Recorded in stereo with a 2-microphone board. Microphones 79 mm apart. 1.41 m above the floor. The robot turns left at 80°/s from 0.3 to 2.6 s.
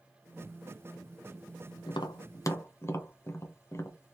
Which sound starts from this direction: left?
Tapping, at 1.9 s.